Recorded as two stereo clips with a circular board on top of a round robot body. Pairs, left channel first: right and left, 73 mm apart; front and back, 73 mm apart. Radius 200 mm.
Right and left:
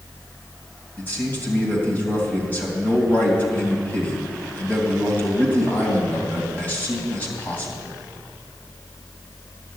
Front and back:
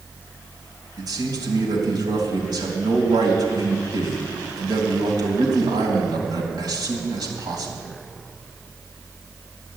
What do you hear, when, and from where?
1.0 s a man speaking: 155° right, 3 m